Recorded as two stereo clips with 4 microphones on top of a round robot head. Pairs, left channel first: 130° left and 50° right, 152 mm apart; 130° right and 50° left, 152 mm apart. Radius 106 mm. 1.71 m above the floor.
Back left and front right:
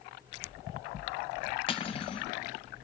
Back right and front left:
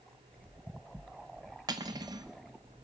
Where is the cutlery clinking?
100° left, 0.9 m.